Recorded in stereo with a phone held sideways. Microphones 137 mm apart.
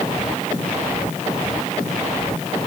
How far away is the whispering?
No whispering in this recording.